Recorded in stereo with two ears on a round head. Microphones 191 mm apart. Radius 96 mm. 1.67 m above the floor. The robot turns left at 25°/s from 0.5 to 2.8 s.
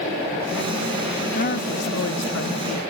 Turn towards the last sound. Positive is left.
turn(degrees=100)